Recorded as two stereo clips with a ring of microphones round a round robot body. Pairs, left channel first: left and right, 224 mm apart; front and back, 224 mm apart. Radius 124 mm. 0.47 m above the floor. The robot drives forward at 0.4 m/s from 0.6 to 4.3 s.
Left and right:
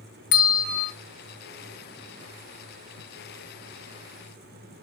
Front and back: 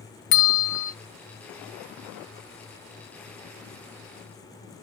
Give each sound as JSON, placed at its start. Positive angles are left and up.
{"t": 0.3, "sound": "a bell", "azimuth_deg": 35, "distance_m": 0.8}